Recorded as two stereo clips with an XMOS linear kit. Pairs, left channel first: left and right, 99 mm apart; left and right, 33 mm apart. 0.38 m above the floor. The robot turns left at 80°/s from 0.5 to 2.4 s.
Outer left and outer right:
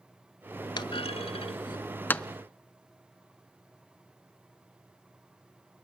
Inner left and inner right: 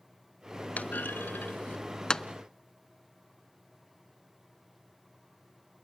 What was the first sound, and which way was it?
A clunk, 50° left (ahead or behind).